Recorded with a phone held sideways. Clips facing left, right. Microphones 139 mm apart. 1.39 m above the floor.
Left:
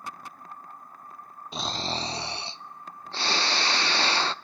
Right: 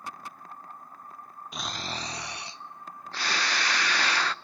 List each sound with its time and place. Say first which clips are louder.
1.5 s snoring: left 5 dB; 30° left (ahead or behind), 0.6 m